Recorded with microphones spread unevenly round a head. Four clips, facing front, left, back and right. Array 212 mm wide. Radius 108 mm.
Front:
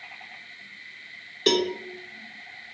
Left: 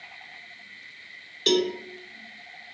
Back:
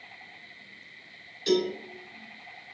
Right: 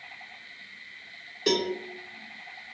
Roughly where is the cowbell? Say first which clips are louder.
Left 3 dB, front 2 dB; ahead.